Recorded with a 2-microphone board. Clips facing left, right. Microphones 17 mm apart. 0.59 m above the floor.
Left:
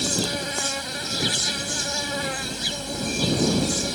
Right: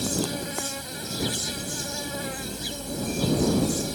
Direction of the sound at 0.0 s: 30° left (ahead or behind).